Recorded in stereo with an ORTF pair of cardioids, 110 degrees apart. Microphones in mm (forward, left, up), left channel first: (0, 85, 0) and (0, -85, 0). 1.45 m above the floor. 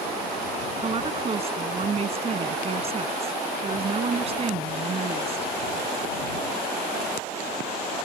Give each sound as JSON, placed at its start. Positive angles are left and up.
{"t": 0.8, "sound": "a woman speaking", "azimuth_deg": -35}